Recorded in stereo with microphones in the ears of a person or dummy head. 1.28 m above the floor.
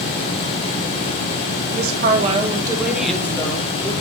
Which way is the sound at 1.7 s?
60° right (ahead or behind).